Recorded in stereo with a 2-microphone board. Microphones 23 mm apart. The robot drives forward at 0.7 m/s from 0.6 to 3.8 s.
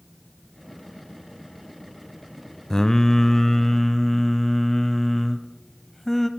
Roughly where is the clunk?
I don't hear a clunk.